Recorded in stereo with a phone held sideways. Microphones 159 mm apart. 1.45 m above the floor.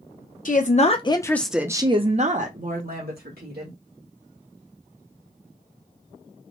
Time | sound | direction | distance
0.5 | a woman speaking | 55° left (ahead or behind) | 0.7 m